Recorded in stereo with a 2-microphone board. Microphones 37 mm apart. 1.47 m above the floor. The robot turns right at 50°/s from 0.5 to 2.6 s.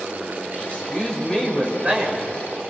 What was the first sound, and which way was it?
A woman speaking, 130° left.